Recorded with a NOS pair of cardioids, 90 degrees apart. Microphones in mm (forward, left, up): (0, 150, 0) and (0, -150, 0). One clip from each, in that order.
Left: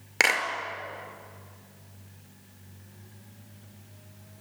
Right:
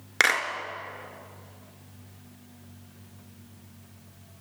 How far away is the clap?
About 4.5 m.